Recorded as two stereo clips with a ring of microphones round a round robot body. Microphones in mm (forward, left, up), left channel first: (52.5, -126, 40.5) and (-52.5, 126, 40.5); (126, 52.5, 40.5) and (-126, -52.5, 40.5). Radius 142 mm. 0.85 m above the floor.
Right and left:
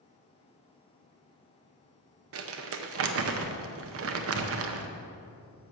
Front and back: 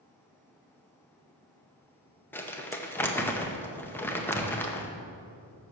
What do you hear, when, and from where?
2.3 s crumpling: 105° left, 0.7 m